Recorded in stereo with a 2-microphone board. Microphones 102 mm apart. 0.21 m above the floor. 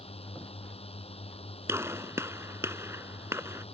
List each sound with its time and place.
0.0 s a drone: 80° left
1.7 s a gunshot: 25° right (ahead or behind)